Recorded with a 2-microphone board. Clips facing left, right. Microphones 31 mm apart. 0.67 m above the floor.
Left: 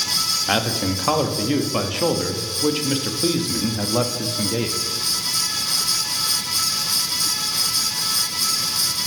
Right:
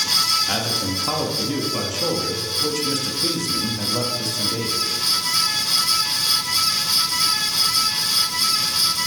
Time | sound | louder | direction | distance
0.5 | a man speaking | left 2 dB | 30° left (ahead or behind) | 0.6 m